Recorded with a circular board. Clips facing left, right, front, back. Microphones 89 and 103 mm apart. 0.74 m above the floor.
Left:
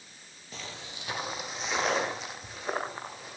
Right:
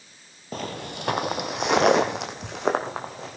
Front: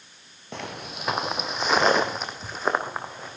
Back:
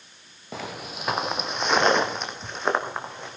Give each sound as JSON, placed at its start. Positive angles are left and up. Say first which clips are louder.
{"t": 0.5, "sound": "footsteps", "louder": "right 11 dB, back 1 dB", "azimuth_deg": -95, "distance_m": 1.0}